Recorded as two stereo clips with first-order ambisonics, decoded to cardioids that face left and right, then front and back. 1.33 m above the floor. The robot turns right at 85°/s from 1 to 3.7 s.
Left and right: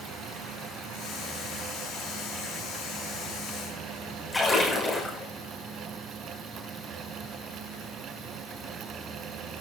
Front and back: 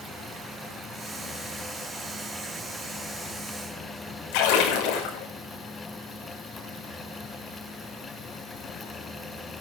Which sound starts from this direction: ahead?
A splash, at 4.3 s.